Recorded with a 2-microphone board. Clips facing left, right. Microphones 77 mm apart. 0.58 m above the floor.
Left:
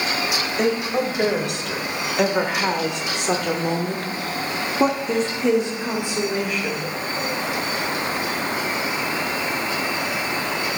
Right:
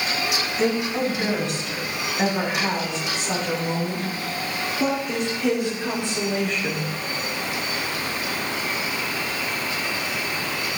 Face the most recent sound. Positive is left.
turn(degrees=0)  # may be behind; listen again after turning